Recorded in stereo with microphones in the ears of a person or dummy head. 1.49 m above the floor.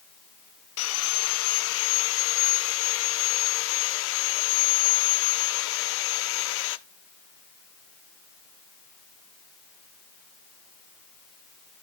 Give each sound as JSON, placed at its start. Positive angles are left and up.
{"t": 0.8, "sound": "sawing", "side_deg": 90, "distance_m": 0.9}